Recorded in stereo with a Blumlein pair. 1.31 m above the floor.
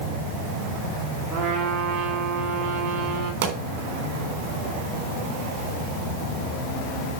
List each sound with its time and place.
1.3 s a trumpet: 25° right, 3 m
3.4 s a pop: 50° right, 3.5 m